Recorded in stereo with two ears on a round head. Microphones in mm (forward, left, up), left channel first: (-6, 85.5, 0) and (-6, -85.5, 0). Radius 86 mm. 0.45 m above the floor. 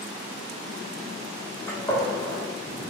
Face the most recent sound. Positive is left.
turn(degrees=15)  # may be behind; listen again after turning